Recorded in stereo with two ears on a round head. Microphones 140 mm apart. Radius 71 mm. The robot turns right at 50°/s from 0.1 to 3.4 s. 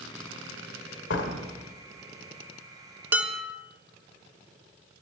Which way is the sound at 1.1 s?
80° left.